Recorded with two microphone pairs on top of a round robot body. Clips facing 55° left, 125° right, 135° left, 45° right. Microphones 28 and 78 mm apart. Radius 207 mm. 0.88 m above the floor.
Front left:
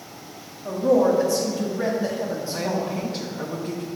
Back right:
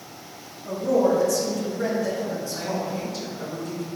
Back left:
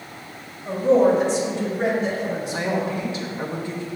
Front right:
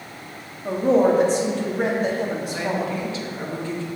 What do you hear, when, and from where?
0.7 s a woman speaking: 5° right, 2 m
2.5 s a woman speaking: 75° left, 1.4 m